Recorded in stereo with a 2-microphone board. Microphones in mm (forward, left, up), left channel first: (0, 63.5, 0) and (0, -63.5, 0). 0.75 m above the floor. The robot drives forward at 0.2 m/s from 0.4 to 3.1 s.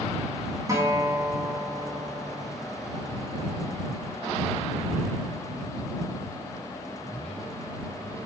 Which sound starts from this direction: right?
A guitar, at 0.7 s.